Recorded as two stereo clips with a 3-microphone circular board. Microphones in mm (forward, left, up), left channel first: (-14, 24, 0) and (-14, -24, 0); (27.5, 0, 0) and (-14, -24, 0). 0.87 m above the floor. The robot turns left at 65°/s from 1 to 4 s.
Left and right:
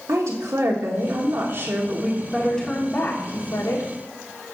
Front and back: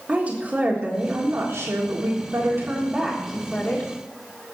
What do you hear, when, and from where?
0.1 s a woman speaking: 90° right, 1.6 m; by 3.9 s 80° left, 1.6 m